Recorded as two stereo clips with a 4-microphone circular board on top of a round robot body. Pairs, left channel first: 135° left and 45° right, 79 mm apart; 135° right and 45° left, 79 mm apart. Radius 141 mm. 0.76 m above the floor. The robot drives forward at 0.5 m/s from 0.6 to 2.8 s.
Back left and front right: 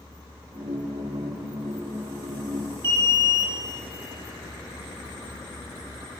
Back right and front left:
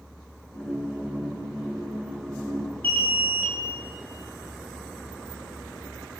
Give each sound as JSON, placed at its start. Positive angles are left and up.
{"t": 2.8, "sound": "an alarm", "azimuth_deg": -70, "distance_m": 6.0}